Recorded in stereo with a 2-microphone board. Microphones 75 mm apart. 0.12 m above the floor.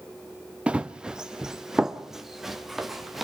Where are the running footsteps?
15° right (ahead or behind), 0.9 m; by 3.2 s centre (ahead or behind), 2.5 m.